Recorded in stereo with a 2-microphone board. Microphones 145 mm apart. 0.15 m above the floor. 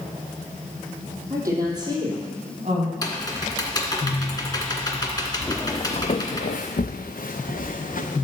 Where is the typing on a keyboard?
25° left (ahead or behind), 1.6 m.